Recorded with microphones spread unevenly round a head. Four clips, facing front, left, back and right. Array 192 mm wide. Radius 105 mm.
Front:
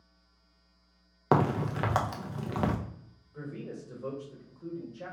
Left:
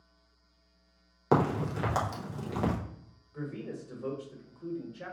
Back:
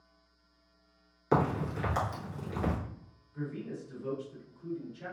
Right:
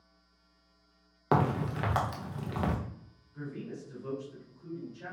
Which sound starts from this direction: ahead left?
A man speaking, at 3.3 s.